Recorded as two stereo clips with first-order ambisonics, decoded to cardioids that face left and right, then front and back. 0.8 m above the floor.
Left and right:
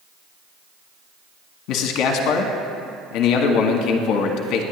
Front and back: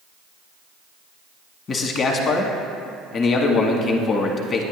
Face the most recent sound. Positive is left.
turn(degrees=60)